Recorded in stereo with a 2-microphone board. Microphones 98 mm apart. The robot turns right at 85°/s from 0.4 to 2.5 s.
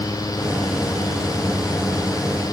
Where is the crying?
No crying in this recording.